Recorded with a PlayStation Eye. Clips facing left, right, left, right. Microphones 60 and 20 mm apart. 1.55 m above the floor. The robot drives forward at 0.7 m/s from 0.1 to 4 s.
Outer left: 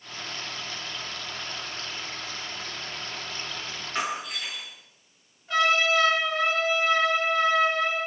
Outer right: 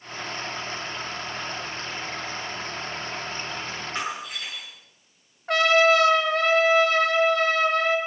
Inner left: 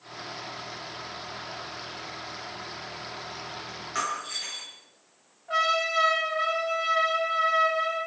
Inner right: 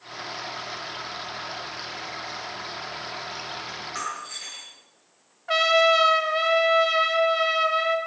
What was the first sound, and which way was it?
Breaking glass, centre (ahead or behind).